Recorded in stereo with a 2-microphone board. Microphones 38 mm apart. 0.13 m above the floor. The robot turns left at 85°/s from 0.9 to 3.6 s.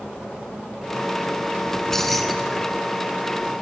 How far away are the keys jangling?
About 0.8 m.